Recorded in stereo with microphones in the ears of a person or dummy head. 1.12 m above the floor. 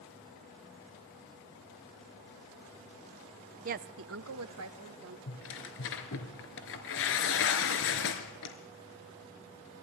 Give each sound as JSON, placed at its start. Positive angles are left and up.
{"t": 3.6, "sound": "a woman speaking", "side_deg": -35, "distance_m": 0.6}
{"t": 5.3, "sound": "tearing paper", "side_deg": 65, "distance_m": 3.0}